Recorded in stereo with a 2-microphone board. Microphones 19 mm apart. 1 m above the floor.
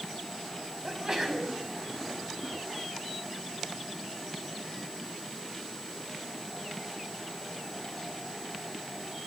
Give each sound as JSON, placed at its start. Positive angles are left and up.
{"t": 0.8, "sound": "a sneeze", "side_deg": -30, "distance_m": 6.0}